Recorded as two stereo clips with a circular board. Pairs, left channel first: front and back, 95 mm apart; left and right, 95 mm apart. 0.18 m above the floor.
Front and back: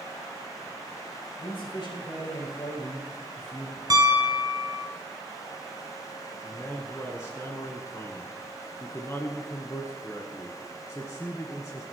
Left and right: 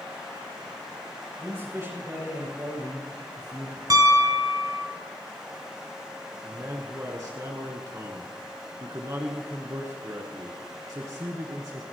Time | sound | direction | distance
1.4 | a man speaking | 35° right | 7.5 m
3.9 | a piano | 135° right | 1.7 m
6.4 | a man speaking | 50° right | 1.7 m